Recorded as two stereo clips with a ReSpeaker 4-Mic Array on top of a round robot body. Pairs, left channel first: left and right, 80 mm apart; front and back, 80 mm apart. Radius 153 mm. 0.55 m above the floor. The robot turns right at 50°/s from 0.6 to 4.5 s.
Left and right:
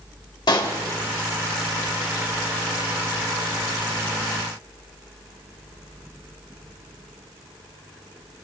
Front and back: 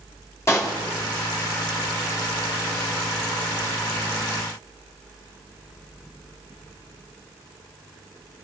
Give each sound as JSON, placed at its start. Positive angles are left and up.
{"t": 0.5, "sound": "a pop", "azimuth_deg": 55, "distance_m": 2.0}